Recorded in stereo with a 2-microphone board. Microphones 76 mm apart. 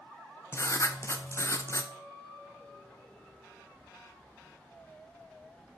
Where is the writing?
40° left (ahead or behind), 0.7 m.